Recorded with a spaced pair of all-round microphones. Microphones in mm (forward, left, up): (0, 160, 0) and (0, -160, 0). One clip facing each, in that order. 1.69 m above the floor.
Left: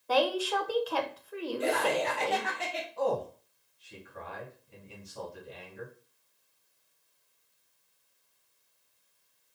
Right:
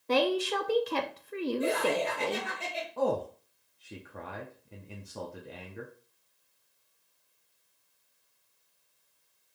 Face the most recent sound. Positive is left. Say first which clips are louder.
# right 1 dB
turn(degrees=-65)  # may be behind; listen again after turning